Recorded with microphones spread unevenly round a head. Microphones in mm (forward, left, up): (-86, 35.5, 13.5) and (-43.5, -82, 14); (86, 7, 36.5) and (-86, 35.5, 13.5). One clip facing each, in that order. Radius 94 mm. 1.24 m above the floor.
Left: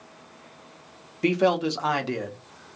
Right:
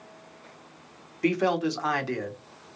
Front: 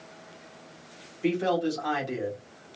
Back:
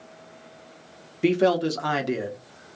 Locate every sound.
1.2 s a man speaking: 175° left, 1.3 m